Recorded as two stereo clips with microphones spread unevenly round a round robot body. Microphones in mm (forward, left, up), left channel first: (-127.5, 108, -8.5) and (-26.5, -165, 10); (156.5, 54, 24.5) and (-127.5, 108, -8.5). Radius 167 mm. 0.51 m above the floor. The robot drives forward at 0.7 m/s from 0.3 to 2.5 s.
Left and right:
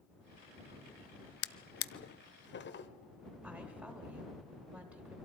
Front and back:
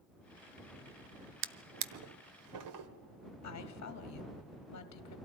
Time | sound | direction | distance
1.4 | a drawer | 135° left | 0.6 m
3.4 | a woman speaking | 20° left | 1.3 m